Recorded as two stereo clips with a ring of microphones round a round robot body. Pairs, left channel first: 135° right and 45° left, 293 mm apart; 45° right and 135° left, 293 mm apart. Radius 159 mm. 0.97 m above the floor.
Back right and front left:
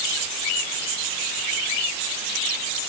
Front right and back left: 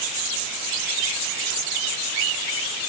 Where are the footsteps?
No footsteps in this recording.